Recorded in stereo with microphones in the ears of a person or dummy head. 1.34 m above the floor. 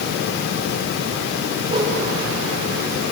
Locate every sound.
1.7 s a whoosh: 25° right (ahead or behind), 5 m